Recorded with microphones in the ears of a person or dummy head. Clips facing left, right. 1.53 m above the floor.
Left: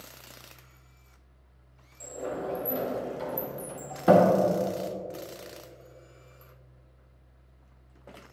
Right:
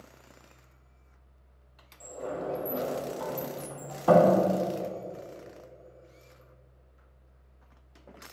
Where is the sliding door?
20° left (ahead or behind), 1.7 m.